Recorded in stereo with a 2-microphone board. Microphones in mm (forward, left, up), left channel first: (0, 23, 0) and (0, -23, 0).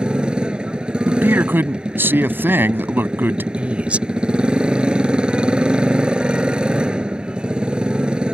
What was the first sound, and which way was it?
A motorcycle, 20° right (ahead or behind).